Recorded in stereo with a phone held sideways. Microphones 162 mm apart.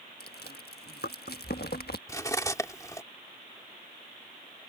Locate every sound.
0.2 s chewing: 80° left
2.1 s cutlery clinking: 20° left (ahead or behind)